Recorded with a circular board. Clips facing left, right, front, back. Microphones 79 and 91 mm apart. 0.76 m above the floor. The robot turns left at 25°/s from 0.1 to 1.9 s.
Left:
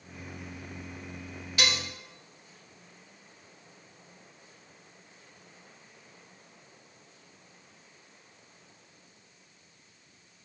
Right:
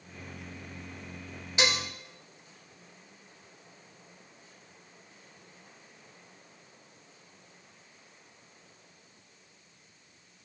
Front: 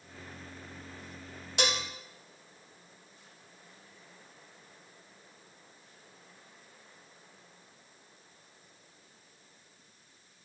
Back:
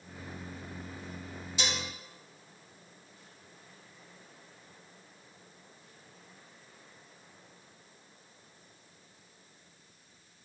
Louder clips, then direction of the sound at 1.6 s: Right 2 dB, front 4 dB; 20° right.